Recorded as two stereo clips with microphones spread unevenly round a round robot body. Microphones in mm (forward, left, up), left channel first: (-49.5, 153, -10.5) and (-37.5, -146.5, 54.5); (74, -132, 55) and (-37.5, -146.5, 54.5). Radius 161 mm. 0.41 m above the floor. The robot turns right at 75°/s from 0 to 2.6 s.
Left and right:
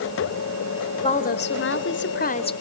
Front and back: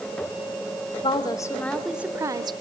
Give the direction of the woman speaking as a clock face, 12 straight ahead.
11 o'clock.